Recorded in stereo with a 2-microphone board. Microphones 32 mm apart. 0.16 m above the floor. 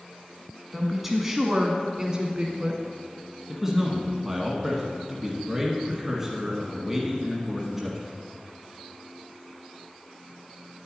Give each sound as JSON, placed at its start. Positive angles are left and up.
{"t": 0.7, "sound": "a woman speaking", "side_deg": -5, "distance_m": 1.0}
{"t": 3.5, "sound": "a man speaking", "side_deg": -15, "distance_m": 1.2}